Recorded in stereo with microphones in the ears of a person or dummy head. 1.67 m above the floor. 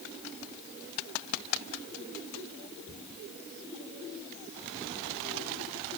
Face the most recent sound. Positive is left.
No sound to turn to.